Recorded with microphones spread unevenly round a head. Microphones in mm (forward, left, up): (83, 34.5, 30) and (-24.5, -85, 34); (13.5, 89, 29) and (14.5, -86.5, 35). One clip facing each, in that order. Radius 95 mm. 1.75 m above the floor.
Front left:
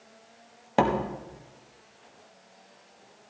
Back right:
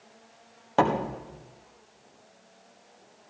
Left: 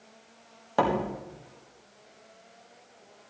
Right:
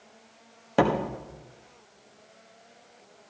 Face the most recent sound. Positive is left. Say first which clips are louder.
# even, right 3 dB
turn(degrees=-25)